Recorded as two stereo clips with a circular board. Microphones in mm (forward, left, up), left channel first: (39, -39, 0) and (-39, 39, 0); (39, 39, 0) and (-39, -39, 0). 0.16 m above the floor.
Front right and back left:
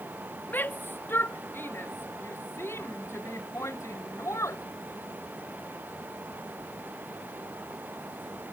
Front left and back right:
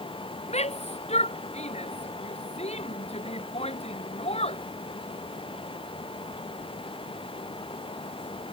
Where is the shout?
30° left; by 4.6 s 20° left.